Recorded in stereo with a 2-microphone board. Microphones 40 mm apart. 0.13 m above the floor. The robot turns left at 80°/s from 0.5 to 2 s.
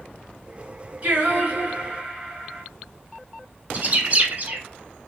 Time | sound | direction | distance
1.0 | singing | 65° right | 1.5 m
3.7 | a bird | 40° right (ahead or behind) | 0.7 m